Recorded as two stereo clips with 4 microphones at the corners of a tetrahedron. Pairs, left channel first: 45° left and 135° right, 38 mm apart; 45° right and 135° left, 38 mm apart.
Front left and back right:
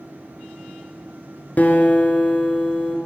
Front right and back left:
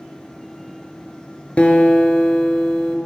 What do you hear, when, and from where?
1.6 s a guitar: 5° left, 1.2 m